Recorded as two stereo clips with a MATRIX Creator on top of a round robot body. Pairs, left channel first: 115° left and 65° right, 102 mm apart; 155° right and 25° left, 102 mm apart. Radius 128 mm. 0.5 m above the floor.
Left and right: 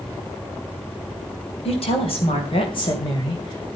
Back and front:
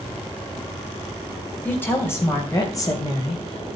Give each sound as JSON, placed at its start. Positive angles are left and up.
{"t": 1.6, "sound": "a woman speaking", "azimuth_deg": 130, "distance_m": 3.0}